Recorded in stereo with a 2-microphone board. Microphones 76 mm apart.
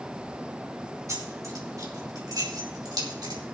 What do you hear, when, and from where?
1.1 s keys jangling: 40° right (ahead or behind), 2.5 m; by 3.4 s 65° right (ahead or behind), 3 m